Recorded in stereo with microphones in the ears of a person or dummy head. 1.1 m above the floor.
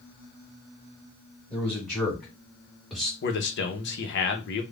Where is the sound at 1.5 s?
10° left (ahead or behind), 2.5 m; by 3.1 s 5° left (ahead or behind), 1.6 m.